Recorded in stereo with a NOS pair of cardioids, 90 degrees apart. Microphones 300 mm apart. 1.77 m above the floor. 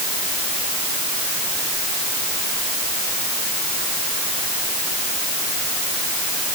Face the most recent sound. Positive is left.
No sound to turn to.